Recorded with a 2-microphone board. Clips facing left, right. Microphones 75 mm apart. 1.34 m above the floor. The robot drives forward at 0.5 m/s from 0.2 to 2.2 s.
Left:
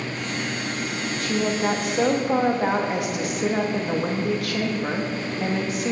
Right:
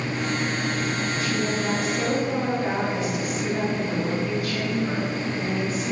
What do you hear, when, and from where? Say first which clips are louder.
1.2 s a woman speaking: left 5 dB; 55° left (ahead or behind), 1.9 m; by 5.9 s 70° left (ahead or behind), 1.7 m